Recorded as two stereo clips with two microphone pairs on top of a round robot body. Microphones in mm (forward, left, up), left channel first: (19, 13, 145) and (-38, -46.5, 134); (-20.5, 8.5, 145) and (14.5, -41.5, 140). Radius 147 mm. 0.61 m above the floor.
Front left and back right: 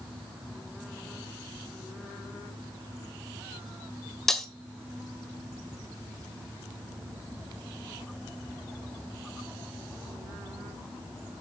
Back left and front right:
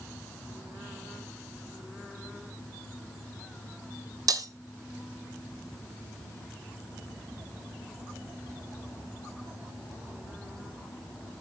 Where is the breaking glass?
40° right, 1.5 m.